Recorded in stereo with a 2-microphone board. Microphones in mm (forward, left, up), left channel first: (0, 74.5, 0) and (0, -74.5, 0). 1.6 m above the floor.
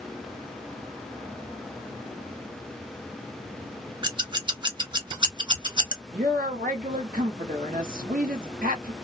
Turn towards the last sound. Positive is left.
turn(degrees=-80)